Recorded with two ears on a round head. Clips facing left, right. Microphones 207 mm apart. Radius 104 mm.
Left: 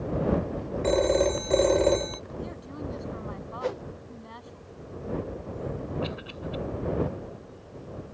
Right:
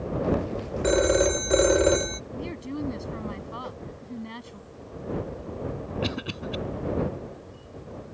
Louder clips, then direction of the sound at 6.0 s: Right 3 dB; 65° right (ahead or behind).